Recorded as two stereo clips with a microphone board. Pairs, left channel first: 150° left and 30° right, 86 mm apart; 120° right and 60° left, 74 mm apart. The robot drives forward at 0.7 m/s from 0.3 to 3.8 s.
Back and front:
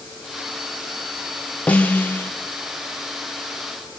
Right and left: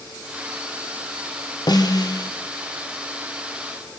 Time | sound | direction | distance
1.7 | a snare drum | 135° right | 2.5 m